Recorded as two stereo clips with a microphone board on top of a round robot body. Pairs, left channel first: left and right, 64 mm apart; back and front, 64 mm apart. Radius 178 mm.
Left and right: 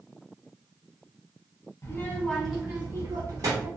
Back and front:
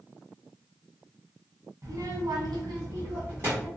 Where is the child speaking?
40° left, 0.7 m; by 3.7 s 55° right, 1.1 m.